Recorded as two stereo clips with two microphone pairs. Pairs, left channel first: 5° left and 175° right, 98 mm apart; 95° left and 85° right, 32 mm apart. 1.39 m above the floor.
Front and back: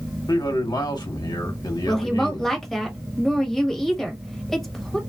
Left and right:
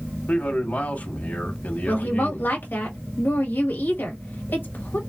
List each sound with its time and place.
0.3 s a man speaking: 55° left, 1.5 m
1.9 s a woman speaking: 90° left, 1.4 m